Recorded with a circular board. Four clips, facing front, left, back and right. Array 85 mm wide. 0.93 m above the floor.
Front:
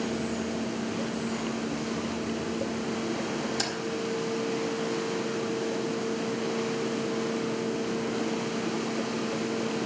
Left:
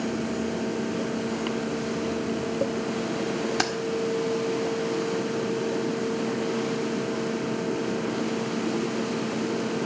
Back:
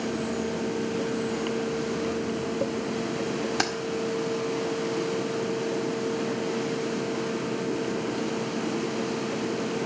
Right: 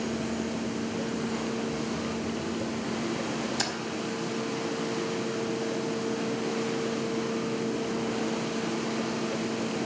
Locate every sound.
3.6 s keys jangling: 130° left, 1.6 m